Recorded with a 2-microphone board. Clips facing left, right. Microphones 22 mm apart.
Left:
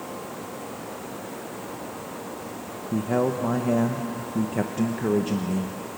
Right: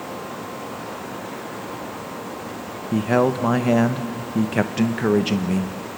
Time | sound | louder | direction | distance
2.9 | a man speaking | right 5 dB | 80° right | 0.8 m